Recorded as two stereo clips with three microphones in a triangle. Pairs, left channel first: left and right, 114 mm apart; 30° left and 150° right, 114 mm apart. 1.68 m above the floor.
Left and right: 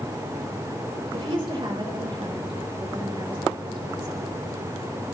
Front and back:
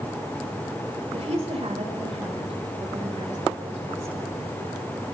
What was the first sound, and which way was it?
A woman speaking, 130° right.